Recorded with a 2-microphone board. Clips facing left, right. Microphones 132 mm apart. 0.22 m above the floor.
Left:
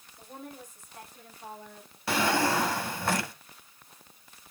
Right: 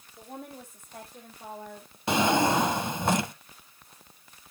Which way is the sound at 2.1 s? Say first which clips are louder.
Right 3 dB; 20° right (ahead or behind).